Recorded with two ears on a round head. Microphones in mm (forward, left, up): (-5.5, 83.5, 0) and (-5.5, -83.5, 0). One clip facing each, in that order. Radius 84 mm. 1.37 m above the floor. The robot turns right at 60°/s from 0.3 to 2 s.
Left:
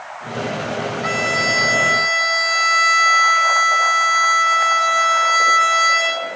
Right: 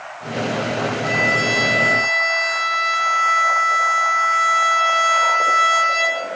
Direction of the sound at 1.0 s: 75° left.